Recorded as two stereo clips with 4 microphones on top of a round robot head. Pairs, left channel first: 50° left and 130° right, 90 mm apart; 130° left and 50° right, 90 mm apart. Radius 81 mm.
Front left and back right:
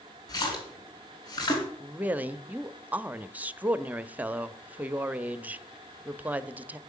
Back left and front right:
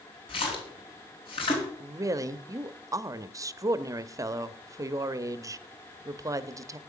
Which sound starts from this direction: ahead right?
A woman speaking, at 1.8 s.